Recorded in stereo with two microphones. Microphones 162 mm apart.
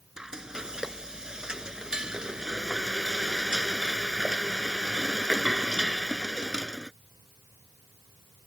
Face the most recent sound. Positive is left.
turn(degrees=-5)  # may be behind; listen again after turning